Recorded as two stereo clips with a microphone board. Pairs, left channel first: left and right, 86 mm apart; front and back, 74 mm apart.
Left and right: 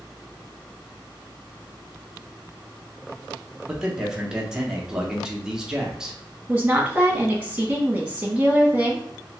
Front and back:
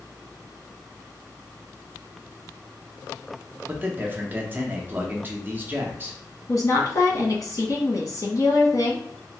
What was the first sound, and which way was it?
A man speaking, 165° right.